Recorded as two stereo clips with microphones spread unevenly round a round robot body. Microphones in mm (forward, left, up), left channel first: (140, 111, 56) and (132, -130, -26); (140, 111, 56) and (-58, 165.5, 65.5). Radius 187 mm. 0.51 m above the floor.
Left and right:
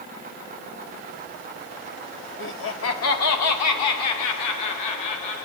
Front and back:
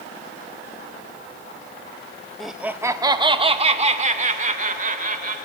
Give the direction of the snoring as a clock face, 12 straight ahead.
I don't hear snoring.